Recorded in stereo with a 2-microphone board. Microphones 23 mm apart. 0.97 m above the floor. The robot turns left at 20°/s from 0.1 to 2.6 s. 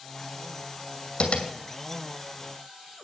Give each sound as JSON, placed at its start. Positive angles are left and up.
{"t": 1.2, "sound": "tapping", "side_deg": 50, "distance_m": 2.0}